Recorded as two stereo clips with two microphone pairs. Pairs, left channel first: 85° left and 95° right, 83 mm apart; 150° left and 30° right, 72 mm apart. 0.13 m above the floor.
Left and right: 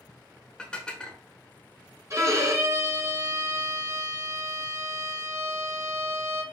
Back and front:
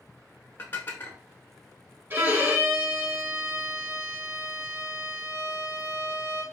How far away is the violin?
About 1.1 m.